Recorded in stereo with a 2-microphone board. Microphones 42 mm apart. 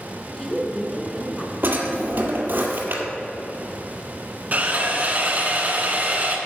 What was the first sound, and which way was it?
A woman speaking, 10° left (ahead or behind).